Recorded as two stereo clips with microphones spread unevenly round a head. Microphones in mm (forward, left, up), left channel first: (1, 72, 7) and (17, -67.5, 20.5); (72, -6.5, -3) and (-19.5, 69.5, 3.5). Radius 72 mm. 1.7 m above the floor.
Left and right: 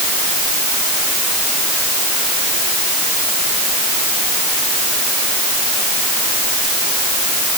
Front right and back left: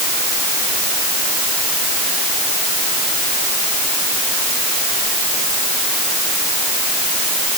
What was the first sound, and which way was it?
Only background noise.